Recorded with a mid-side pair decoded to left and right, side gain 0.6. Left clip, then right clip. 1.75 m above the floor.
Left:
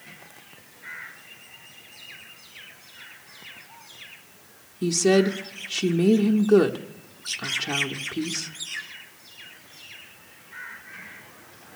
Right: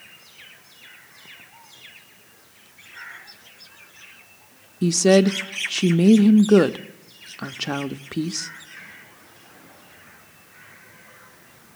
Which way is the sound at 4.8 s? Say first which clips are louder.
Right 4 dB; 30° right.